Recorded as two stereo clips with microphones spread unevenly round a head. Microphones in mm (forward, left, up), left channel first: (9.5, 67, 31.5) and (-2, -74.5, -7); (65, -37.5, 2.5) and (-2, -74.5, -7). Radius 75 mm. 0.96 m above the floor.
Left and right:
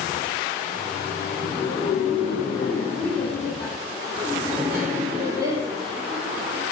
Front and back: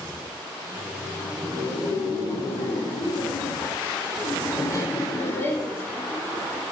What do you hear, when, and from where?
0.6 s laughter: 40° left, 2.5 m; by 6.6 s 45° right, 1.9 m